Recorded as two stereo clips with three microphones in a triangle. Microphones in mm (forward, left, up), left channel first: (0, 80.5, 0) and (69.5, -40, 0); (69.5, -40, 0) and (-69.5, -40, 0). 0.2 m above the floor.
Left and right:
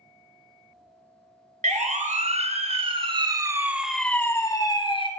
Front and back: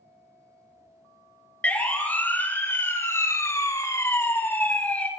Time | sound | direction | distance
1.6 | a siren | 80° right | 2 m